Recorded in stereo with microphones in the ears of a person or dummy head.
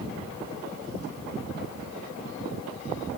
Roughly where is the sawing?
No sawing in this recording.